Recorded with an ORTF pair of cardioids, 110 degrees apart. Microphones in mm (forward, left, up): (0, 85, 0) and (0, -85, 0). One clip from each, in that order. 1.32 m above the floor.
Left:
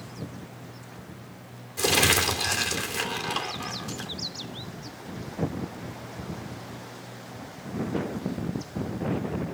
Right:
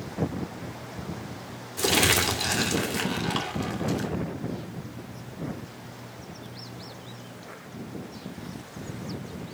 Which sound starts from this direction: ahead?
Crumpling, at 1.8 s.